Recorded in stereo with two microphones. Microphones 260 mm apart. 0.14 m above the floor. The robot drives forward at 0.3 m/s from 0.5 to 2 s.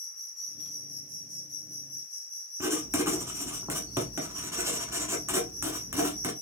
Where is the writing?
10° right (ahead or behind), 0.8 m.